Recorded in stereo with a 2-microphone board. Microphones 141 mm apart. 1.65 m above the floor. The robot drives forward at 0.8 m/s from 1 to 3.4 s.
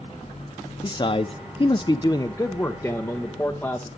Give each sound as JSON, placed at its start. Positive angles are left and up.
{"t": 0.8, "sound": "a man speaking", "side_deg": 30, "distance_m": 0.6}